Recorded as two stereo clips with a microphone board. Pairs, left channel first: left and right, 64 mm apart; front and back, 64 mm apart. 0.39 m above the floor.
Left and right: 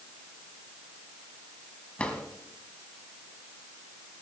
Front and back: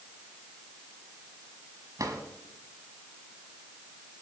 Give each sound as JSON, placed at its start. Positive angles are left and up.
{"t": 2.0, "sound": "a drawer", "azimuth_deg": 160, "distance_m": 1.9}